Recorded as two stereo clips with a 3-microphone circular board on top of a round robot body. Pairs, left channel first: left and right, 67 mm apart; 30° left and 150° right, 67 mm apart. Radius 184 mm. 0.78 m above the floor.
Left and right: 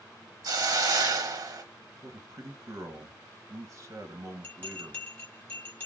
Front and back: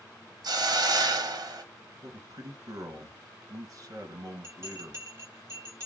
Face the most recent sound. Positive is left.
turn(degrees=155)